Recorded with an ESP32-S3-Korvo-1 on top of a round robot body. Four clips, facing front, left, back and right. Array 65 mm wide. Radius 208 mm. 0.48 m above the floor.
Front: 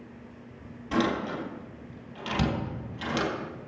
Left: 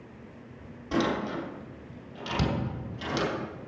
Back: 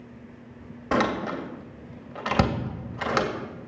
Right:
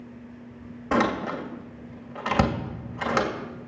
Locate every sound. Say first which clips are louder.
0.9 s a door slam: right 4 dB, back 3 dB; 140° right, 1.9 m